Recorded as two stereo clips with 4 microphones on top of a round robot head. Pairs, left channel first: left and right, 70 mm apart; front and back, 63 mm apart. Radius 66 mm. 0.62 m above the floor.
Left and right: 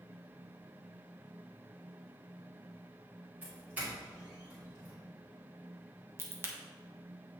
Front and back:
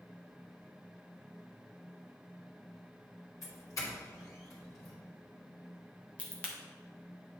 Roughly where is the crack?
Ahead right.